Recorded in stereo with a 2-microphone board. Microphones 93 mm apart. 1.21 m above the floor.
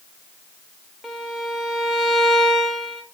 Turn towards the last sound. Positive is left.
turn(degrees=0)  # may be behind; listen again after turning